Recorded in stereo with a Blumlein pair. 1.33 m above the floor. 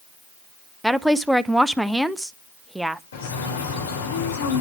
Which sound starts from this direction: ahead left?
A bird, at 3.1 s.